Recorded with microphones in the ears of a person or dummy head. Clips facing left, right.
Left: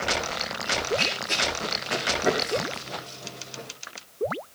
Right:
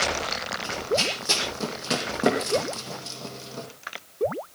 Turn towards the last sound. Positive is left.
turn(degrees=-55)  # may be behind; listen again after turning